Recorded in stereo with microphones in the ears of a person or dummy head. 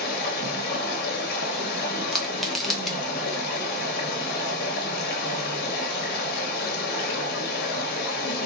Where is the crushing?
5° left (ahead or behind), 1.1 m.